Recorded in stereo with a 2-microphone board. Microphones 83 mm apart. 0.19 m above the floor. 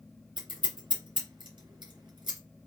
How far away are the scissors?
About 3.5 m.